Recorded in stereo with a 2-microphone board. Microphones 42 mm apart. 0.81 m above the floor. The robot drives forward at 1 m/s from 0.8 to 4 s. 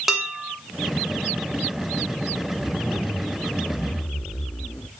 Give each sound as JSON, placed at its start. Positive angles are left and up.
{"t": 0.1, "sound": "dishes clattering", "side_deg": -5, "distance_m": 2.5}
{"t": 2.6, "sound": "a zipper", "side_deg": 20, "distance_m": 2.0}